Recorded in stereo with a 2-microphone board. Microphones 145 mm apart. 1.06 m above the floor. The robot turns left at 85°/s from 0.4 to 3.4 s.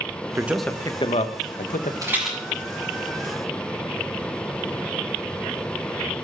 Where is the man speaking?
15° right (ahead or behind), 0.8 m; by 1.9 s 60° left (ahead or behind), 0.8 m.